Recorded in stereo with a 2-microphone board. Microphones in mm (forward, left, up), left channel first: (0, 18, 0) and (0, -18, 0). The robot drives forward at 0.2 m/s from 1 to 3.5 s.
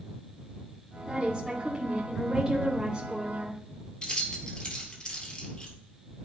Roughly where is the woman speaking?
Right.